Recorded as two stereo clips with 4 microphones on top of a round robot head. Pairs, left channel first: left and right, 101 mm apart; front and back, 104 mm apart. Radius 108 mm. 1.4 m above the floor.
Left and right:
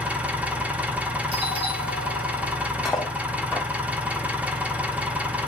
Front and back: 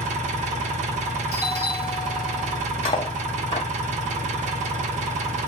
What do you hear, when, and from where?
0.0 s an engine running: 165° right, 0.7 m
1.3 s a doorbell: 65° right, 1.8 m
2.9 s cutlery clinking: straight ahead, 0.5 m